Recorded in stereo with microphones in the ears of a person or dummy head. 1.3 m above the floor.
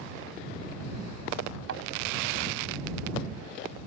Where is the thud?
70° right (ahead or behind).